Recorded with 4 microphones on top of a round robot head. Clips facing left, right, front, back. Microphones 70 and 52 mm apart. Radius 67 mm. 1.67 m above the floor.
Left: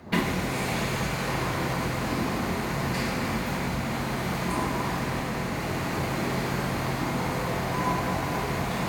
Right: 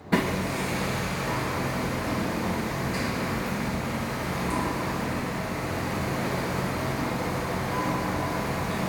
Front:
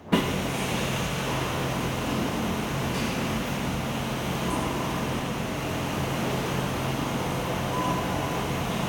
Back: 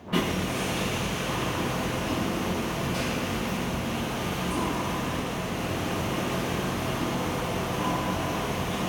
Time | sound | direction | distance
0.1 | hammering | 35° right | 1.3 m